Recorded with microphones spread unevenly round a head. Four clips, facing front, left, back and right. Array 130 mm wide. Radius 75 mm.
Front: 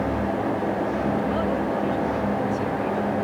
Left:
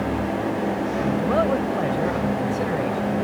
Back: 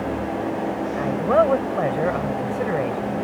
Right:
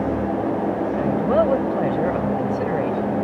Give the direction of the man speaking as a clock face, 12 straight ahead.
5 o'clock.